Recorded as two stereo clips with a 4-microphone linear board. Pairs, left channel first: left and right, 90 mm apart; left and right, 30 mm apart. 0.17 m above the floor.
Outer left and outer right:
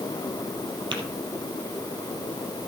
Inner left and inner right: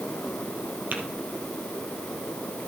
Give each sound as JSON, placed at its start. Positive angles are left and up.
{"t": 0.9, "sound": "tapping", "side_deg": -55, "distance_m": 2.5}